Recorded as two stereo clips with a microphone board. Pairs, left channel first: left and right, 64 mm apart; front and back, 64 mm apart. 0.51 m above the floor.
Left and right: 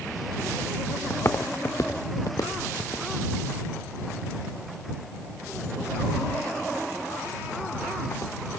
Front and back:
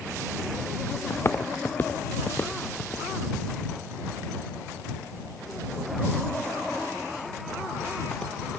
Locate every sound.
1.1 s footsteps: 45° left; by 8.6 s 80° left